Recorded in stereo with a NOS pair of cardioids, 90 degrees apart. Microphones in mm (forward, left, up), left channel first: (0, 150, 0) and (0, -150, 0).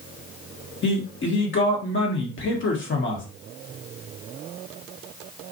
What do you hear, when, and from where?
0.8 s a man speaking: 40° left, 1.2 m